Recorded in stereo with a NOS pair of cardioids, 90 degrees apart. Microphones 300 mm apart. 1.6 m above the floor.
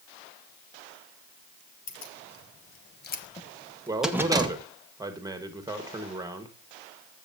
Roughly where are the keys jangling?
Ahead left.